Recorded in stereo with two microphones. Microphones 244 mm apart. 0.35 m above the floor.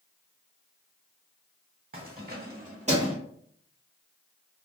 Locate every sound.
1.9 s keys jangling: 35° right (ahead or behind), 1.1 m; by 3.1 s 20° right (ahead or behind), 1.2 m